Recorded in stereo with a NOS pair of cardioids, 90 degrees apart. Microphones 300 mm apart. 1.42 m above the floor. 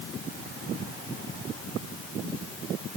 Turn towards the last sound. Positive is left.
No sound to turn to.